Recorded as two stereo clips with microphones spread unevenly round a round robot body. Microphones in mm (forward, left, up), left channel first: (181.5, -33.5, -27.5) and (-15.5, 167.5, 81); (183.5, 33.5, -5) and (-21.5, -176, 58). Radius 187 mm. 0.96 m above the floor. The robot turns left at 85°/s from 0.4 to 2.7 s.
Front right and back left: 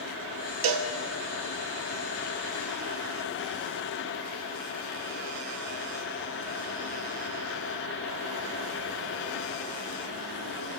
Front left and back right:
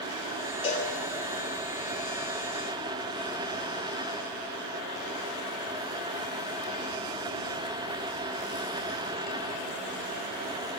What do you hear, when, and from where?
0.6 s a cowbell: 125° left, 0.9 m; by 0.9 s 100° left, 0.9 m